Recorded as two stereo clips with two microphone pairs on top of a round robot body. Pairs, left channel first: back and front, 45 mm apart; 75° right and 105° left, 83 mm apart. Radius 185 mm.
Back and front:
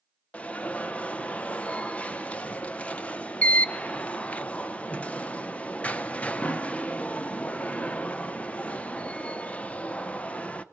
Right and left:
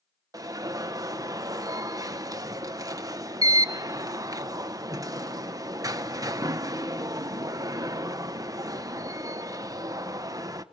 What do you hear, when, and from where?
0.3 s an alarm: 135° left, 1.1 m